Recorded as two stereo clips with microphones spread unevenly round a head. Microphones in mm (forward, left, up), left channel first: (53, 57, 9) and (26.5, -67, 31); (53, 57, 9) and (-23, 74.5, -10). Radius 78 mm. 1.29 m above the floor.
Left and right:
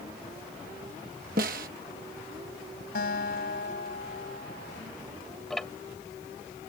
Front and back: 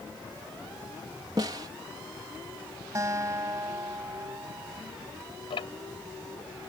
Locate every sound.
1.4 s a snare drum: 135° right
3.0 s a guitar: 115° left
5.5 s ticking: 10° right